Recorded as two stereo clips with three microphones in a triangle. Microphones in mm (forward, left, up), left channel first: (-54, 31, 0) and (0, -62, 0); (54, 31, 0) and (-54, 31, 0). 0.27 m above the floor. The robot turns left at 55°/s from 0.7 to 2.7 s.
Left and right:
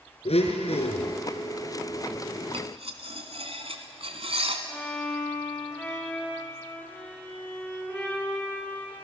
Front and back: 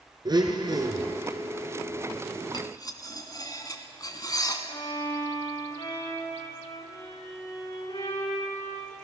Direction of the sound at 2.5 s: 40° right.